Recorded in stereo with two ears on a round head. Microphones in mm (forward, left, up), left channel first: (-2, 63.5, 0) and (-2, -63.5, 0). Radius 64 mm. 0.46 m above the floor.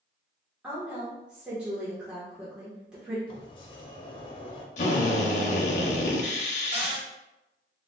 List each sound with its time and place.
0.6 s a woman speaking: 5° right (ahead or behind), 0.9 m
3.3 s a sliding door: 35° left (ahead or behind), 0.5 m
4.8 s a drill: 50° left (ahead or behind), 0.6 m
6.7 s a cupboard door: 45° right (ahead or behind), 1.3 m